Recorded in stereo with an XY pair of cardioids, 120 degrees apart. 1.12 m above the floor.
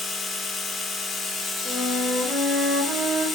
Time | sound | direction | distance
0.0 | a machine running | 30° left | 0.8 m
1.6 | a flute | 40° right | 1.0 m